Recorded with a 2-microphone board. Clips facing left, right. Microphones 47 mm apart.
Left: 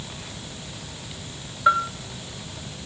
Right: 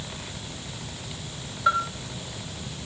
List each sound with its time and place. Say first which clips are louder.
1.7 s a bell: left 4 dB; 15° left (ahead or behind), 1.2 m